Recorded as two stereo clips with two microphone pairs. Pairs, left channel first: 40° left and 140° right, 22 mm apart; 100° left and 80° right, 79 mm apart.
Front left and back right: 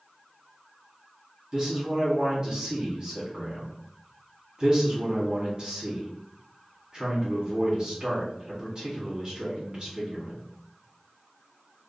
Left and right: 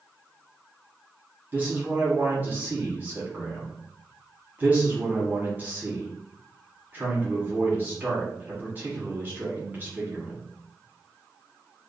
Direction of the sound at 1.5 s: 125° right.